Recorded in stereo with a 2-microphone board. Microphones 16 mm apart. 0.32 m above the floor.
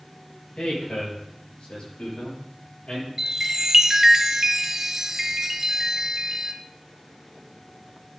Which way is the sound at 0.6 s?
75° left (ahead or behind).